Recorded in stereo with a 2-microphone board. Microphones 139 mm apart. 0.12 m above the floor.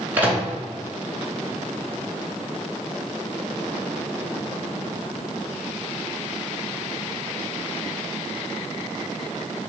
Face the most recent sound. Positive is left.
turn(degrees=-10)  # may be behind; listen again after turning